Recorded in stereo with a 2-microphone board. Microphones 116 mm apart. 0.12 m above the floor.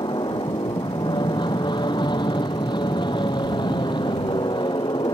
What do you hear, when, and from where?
0.0 s an aircraft: 40° left (ahead or behind)